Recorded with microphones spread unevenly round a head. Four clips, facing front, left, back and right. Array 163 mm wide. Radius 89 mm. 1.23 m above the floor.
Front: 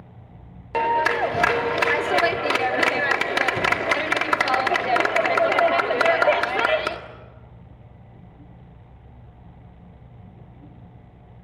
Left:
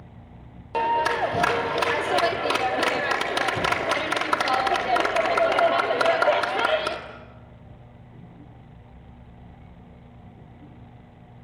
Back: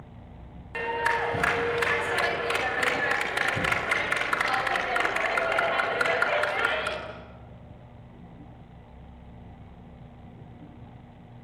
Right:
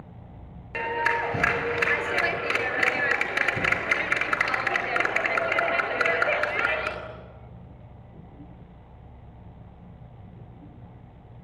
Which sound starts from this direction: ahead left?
A clap, at 0.7 s.